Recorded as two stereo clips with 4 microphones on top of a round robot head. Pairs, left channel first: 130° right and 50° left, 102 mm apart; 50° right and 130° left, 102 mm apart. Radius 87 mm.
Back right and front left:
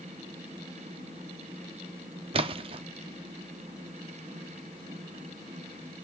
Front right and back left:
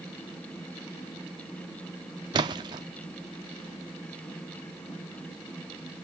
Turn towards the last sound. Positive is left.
turn(degrees=80)